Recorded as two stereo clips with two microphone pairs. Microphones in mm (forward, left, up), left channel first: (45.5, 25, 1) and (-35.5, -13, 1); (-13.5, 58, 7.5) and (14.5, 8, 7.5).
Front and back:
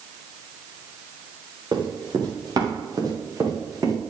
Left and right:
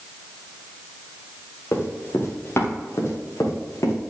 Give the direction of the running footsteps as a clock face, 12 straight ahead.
6 o'clock.